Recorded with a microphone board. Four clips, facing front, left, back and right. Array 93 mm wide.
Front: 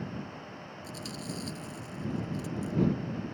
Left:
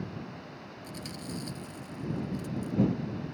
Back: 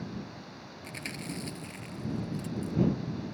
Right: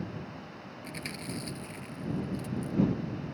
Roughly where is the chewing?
Behind right.